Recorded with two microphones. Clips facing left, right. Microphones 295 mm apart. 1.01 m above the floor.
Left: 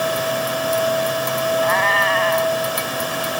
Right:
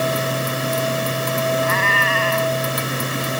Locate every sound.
1.6 s a cat meowing: 35° right (ahead or behind)